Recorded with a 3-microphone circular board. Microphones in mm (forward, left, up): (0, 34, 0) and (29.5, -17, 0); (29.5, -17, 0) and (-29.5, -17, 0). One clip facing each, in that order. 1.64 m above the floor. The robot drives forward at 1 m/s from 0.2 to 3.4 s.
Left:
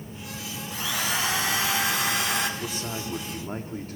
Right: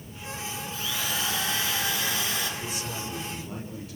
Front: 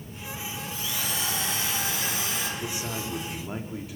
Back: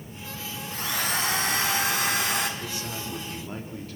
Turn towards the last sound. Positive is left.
turn(degrees=80)